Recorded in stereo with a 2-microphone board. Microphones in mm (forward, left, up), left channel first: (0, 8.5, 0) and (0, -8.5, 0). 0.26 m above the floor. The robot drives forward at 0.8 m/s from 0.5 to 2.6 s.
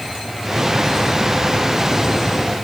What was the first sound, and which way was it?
Only background noise.